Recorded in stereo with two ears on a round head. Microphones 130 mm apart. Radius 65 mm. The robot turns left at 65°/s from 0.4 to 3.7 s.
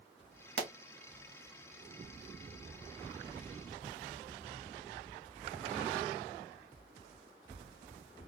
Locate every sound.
0.6 s a pop: 75° right (ahead or behind), 0.8 m; by 0.7 s 85° right, 0.8 m